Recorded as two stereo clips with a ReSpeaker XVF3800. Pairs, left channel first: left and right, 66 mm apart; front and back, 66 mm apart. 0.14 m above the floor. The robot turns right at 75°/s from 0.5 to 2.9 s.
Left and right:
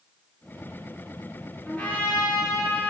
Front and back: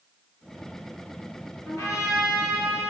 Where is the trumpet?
20° left, 2.5 m; by 2.9 s 115° left, 2.5 m.